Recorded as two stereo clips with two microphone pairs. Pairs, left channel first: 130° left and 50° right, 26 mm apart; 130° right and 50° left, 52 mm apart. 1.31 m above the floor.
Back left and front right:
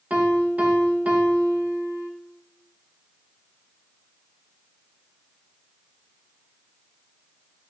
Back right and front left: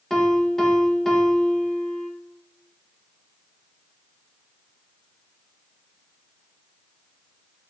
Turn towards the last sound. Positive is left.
turn(degrees=-50)